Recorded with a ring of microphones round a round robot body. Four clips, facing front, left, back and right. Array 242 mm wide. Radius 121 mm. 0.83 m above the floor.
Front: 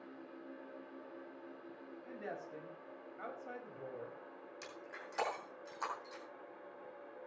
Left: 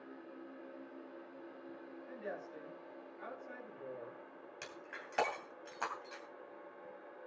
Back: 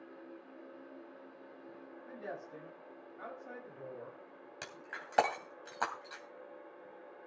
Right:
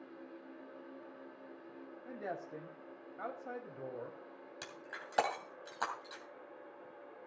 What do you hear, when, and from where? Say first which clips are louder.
2.0 s a woman speaking: right 3 dB, back 1 dB; 85° right, 5 m
4.6 s breaking glass: right 1 dB, back 5 dB; 165° right, 2.5 m